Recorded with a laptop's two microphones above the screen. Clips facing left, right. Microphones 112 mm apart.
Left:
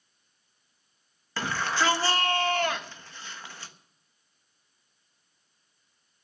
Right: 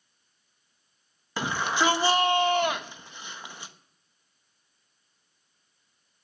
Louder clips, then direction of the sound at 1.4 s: Right 1 dB; 15° right (ahead or behind).